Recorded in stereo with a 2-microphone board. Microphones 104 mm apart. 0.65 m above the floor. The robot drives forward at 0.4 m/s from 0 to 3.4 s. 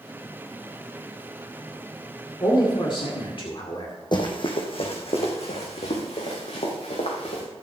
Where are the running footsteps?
45° left (ahead or behind), 2 m; by 7.4 s 80° left, 5 m.